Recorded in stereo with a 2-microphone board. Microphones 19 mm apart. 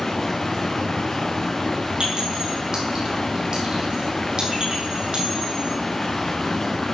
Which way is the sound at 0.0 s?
35° left (ahead or behind).